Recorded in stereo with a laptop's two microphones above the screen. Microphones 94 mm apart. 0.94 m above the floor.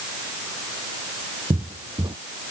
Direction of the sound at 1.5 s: 65° right (ahead or behind).